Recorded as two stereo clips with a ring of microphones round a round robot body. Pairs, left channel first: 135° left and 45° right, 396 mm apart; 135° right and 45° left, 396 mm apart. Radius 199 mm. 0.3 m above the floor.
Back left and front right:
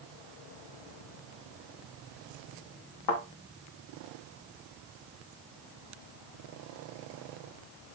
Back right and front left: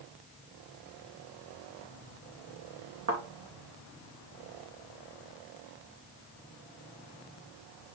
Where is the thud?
100° left, 3.5 m.